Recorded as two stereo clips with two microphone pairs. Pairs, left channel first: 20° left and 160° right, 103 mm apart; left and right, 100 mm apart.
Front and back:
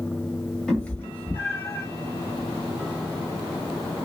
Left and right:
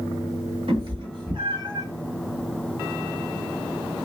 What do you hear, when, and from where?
0.7 s a cat meowing: 65° right, 1.2 m; by 1.9 s 45° right, 1.7 m